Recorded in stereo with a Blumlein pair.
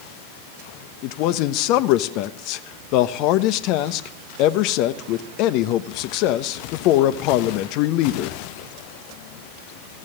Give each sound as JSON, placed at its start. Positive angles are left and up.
{"t": 1.0, "sound": "a man speaking", "azimuth_deg": 40, "distance_m": 0.7}